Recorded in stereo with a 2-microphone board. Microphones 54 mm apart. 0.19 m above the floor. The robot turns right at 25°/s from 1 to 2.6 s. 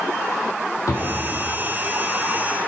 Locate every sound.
0.9 s a drawer: 85° left, 1.8 m; by 1.2 s 80° left, 1.8 m